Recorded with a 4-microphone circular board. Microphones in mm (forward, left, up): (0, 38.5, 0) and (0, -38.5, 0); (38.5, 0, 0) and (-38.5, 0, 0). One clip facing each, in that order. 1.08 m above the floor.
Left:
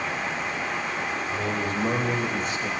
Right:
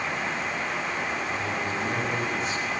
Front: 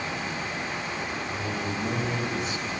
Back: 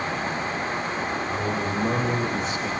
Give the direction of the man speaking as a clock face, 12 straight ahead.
7 o'clock.